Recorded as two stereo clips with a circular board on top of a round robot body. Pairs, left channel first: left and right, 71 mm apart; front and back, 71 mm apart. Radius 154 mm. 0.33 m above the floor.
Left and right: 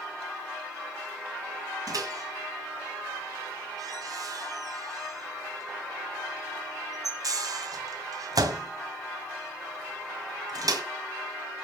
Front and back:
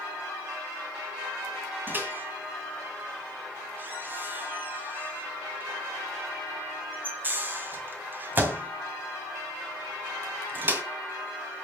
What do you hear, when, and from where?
1.9 s a microwave: 120° right, 2 m